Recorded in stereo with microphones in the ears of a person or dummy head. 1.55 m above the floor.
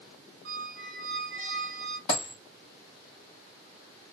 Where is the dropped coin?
20° left (ahead or behind), 1.1 m.